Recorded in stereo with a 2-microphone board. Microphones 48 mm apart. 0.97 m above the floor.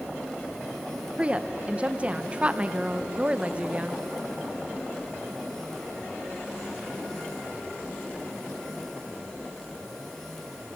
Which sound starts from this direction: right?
A woman speaking, at 1.2 s.